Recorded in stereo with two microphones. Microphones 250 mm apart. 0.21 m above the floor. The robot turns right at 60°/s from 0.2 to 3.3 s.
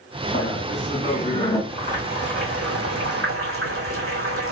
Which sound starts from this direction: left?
Laughter, at 0.3 s.